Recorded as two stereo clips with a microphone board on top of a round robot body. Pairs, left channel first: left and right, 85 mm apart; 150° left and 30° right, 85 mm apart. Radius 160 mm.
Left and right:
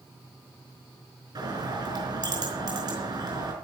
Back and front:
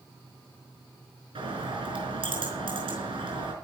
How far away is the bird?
About 4.5 m.